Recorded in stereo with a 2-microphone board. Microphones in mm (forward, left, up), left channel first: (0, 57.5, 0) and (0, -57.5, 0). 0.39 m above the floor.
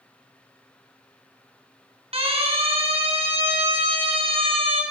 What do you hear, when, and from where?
2.1 s a siren: 60° right (ahead or behind), 7 m; by 4.8 s 55° right (ahead or behind), 5 m